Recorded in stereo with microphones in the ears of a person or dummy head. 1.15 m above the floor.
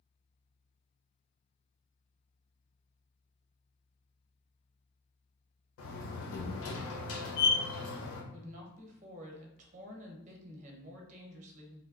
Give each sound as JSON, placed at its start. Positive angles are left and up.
{"t": 5.8, "sound": "a door slam", "side_deg": 80, "distance_m": 1.1}
{"t": 8.3, "sound": "a woman speaking", "side_deg": -40, "distance_m": 1.0}